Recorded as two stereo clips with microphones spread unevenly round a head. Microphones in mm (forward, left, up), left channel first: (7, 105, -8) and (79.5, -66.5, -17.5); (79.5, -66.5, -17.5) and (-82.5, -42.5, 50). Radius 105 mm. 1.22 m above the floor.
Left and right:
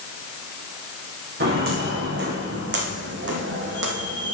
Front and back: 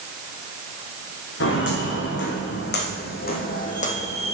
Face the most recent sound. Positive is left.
turn(degrees=-80)